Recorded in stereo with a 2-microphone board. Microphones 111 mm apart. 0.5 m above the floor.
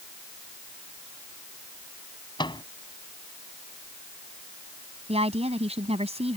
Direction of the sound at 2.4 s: 45° left (ahead or behind).